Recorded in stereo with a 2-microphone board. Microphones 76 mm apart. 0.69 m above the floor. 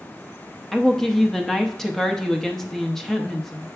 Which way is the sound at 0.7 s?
5° left (ahead or behind).